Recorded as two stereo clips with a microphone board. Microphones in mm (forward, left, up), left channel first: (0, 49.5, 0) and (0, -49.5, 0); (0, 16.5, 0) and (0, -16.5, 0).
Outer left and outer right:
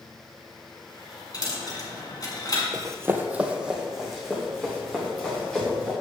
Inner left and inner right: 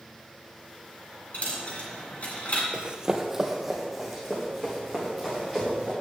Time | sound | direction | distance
1.3 | a dropped coin | 40° left (ahead or behind) | 1.8 m
2.7 | running footsteps | 40° right (ahead or behind) | 0.8 m